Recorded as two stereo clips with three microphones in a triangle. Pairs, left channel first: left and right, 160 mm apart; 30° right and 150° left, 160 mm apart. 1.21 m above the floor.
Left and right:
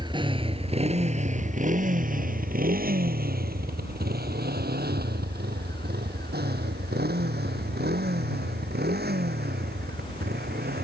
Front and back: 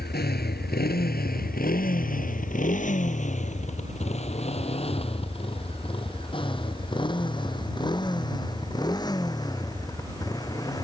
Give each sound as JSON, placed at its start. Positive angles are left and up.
{"t": 0.0, "sound": "a motorcycle", "azimuth_deg": -30}